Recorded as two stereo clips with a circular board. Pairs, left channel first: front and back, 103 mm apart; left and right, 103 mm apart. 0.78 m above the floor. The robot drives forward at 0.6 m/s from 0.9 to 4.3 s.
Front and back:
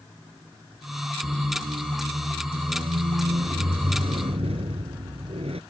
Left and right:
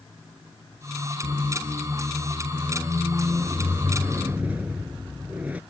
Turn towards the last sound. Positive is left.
turn(degrees=-165)